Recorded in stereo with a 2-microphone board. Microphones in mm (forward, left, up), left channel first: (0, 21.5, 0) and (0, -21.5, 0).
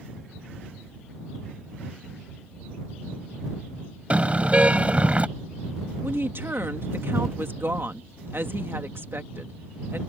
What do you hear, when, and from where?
4.1 s a car horn: 30° right (ahead or behind)
6.0 s a woman speaking: 65° right (ahead or behind)